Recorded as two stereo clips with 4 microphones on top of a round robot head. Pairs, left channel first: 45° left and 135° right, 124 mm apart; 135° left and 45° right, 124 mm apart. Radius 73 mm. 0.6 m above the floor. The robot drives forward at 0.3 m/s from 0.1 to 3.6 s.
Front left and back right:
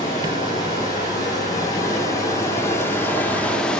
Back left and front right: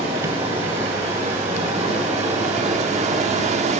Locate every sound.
0.0 s running water: 10° right, 1.4 m; by 3.8 s 35° right, 0.5 m